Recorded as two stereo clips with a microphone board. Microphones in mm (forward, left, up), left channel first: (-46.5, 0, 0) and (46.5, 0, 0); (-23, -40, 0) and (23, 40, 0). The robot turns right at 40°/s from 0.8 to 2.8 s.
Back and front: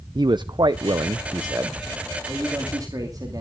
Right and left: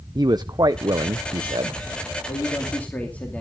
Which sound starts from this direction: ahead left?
A man speaking, at 0.1 s.